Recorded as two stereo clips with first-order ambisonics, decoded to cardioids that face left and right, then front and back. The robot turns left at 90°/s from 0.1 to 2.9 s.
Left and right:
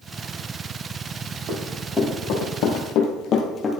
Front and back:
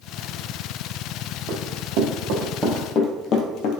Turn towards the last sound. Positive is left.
turn(degrees=10)